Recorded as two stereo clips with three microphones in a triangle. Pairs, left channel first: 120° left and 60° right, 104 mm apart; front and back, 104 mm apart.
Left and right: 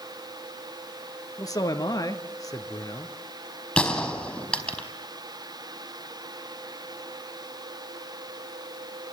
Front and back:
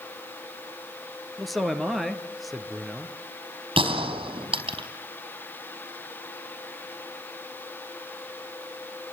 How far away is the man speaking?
About 2 m.